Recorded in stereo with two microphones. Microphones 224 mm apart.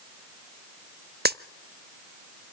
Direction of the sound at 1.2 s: 45° right (ahead or behind).